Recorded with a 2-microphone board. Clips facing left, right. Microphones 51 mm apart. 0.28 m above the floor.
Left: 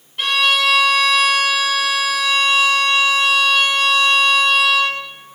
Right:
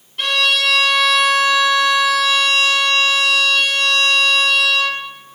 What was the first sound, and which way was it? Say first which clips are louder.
A violin: left 1 dB; 5° left (ahead or behind).